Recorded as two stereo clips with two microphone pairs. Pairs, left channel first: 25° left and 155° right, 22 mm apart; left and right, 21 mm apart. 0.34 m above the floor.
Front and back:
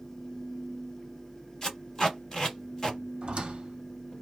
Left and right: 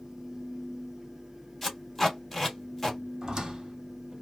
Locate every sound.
1.6 s tape being pulled: 15° left, 1.4 m
3.2 s a squeak: 140° right, 0.9 m